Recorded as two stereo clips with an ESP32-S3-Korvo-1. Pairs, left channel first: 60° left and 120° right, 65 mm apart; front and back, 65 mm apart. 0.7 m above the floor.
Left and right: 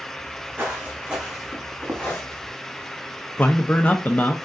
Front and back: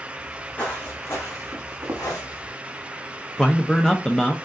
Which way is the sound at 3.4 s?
65° left.